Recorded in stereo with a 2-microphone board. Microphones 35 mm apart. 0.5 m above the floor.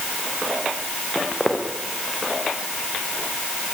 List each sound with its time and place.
1.1 s footsteps: 5° right (ahead or behind), 6.5 m